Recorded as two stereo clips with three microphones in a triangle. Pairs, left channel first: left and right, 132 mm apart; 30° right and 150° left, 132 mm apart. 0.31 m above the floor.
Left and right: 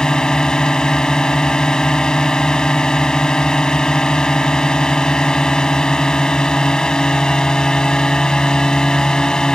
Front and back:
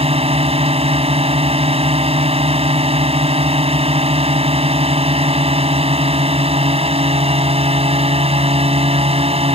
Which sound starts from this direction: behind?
A drone, at 0.0 s.